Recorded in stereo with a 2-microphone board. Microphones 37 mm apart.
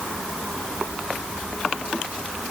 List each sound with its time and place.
Only background noise.